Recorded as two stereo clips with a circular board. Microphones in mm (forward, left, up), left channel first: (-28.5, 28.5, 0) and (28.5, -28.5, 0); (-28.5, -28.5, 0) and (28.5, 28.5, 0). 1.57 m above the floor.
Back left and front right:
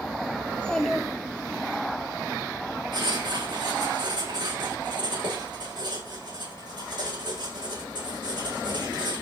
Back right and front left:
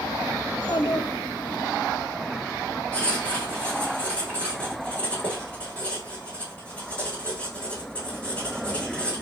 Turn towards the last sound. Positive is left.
turn(degrees=-60)